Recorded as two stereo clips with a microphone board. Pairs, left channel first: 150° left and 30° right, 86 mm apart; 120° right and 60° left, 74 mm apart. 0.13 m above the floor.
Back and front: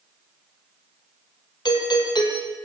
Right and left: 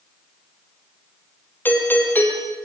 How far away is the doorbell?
About 4 m.